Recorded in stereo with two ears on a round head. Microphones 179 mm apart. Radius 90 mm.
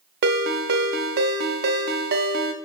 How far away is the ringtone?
About 0.5 m.